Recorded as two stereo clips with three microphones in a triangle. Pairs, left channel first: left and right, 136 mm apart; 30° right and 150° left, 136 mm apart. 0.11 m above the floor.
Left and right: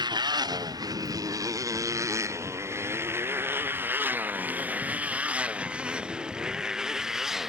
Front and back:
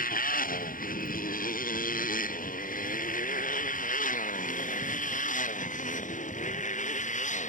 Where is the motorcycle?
30° right; by 7.5 s straight ahead.